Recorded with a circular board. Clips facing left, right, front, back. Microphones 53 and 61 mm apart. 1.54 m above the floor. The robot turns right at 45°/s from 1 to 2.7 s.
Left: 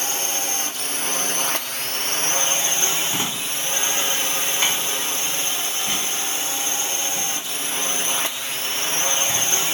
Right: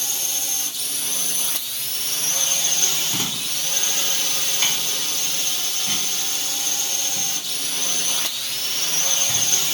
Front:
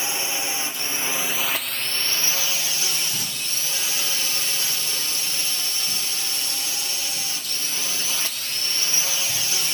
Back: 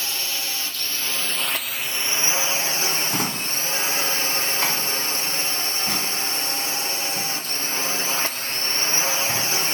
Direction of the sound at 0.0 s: 65° left.